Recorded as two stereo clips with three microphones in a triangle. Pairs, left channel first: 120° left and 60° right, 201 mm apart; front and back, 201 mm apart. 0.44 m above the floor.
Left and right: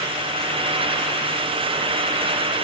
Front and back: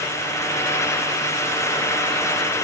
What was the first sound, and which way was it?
Only background noise.